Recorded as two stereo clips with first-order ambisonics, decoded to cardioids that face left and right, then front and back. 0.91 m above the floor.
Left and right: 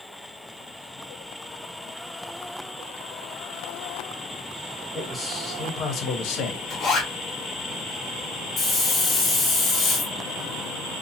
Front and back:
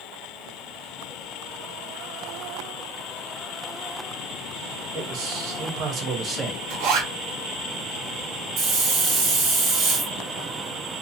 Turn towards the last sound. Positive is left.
turn(degrees=155)